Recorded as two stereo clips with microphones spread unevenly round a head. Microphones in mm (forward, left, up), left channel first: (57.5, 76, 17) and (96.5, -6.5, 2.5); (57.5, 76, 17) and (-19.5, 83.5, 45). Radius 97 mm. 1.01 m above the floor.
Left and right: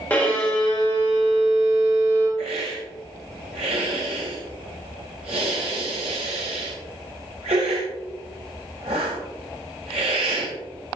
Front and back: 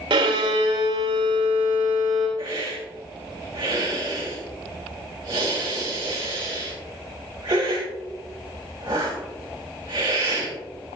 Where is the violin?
165° right, 3 m.